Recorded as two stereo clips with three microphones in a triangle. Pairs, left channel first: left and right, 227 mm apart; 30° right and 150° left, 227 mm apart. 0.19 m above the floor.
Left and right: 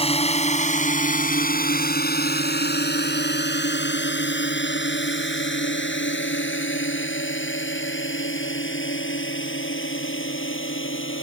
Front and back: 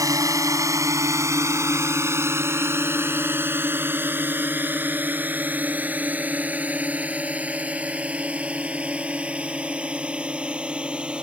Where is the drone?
95° left; by 11.2 s 65° left.